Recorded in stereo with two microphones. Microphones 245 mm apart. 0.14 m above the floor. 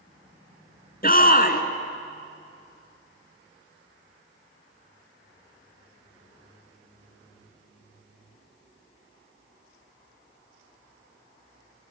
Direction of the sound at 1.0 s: 35° left (ahead or behind).